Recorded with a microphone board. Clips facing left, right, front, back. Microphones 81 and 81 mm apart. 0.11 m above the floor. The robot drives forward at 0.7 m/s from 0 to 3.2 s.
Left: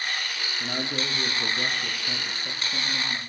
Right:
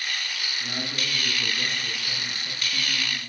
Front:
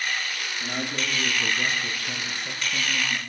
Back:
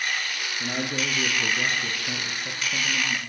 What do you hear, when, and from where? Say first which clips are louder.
0.6 s a man speaking: left 4 dB, back 2 dB; 125° left, 5 m; by 3.2 s 140° left, 6 m